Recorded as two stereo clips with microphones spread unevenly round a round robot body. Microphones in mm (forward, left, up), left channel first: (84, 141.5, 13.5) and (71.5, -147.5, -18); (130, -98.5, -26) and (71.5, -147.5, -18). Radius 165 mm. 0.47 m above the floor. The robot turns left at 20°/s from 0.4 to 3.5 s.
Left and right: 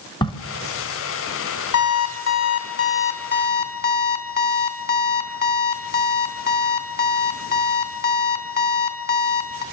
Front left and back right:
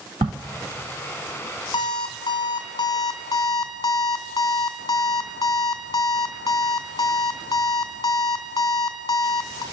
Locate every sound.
0.2 s a crack: 165° left, 0.7 m
1.7 s an alarm clock: 65° left, 2.5 m; by 9.6 s 30° left, 2.5 m